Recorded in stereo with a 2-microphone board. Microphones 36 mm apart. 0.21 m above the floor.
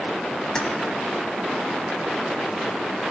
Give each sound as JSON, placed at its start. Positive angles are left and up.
{"t": 0.6, "sound": "keys jangling", "side_deg": 20, "distance_m": 0.9}